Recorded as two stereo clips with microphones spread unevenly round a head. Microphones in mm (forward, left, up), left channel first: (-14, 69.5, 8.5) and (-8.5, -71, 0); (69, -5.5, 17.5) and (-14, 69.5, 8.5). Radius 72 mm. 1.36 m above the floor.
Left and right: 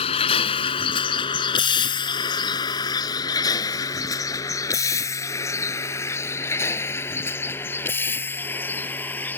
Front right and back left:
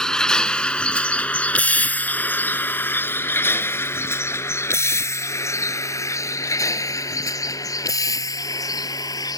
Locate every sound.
0.0 s a vehicle: 40° left; by 9.4 s 15° left